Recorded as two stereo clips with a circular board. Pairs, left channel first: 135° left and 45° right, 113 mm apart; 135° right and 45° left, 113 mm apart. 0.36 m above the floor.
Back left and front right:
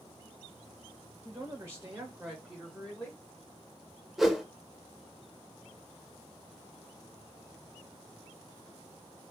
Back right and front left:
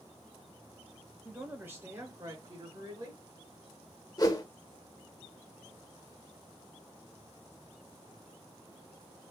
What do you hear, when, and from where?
1.2 s a man speaking: 30° right, 1.1 m; by 3.2 s 60° left, 1.2 m
4.2 s a whoosh: 135° right, 0.6 m